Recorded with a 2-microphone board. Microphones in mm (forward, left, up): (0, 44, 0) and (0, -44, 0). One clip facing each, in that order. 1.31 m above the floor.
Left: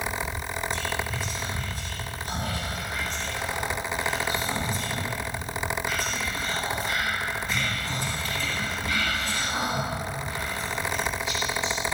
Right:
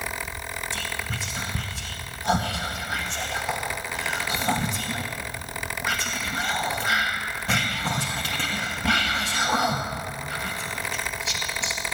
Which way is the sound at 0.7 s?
80° right.